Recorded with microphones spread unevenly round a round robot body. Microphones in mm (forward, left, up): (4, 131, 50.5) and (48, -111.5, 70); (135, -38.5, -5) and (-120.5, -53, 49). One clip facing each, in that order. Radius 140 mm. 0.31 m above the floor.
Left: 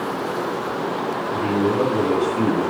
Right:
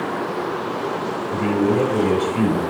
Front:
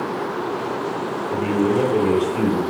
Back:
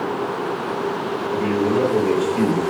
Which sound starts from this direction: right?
A man speaking, at 1.3 s.